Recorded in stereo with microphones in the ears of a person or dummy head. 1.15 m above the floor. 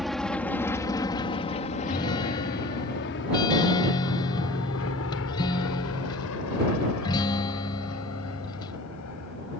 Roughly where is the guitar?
Left.